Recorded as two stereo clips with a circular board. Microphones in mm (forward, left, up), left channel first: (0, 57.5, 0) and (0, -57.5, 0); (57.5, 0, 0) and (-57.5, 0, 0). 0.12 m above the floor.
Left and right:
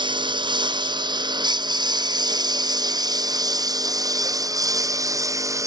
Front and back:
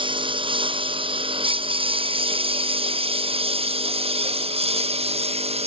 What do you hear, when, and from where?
0.0 s a lawn mower: 140° right; by 5.7 s 155° right